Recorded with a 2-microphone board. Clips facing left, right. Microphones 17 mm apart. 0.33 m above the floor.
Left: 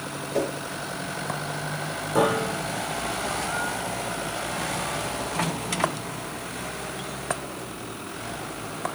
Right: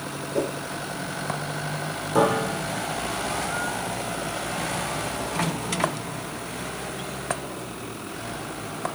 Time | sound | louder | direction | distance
0.3 | a whoosh | even | 65° left (ahead or behind) | 0.6 m
2.1 | a piano | right 1 dB | 5° right (ahead or behind) | 0.8 m